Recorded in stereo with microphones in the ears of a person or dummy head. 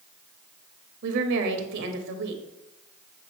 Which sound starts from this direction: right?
A woman speaking, at 1.0 s.